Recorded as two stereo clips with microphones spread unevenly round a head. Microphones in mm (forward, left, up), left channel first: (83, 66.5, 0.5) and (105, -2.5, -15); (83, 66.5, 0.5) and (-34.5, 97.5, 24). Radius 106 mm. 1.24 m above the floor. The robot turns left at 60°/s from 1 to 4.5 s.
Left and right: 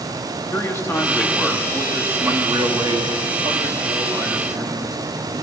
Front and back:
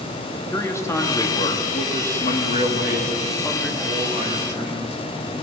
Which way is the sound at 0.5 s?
50° left.